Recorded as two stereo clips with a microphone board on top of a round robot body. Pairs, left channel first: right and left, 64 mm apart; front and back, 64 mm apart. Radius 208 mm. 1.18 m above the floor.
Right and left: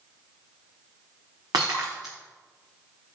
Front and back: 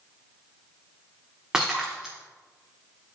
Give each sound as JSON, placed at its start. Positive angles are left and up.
{"t": 1.5, "sound": "breaking glass", "azimuth_deg": 105, "distance_m": 0.9}